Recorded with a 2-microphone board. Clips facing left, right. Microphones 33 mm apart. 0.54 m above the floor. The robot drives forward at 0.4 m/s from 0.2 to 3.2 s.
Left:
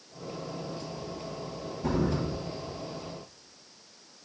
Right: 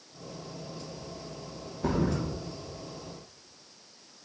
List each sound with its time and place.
1.8 s a thud: 75° right (ahead or behind), 5 m; by 2.2 s 70° right (ahead or behind), 5 m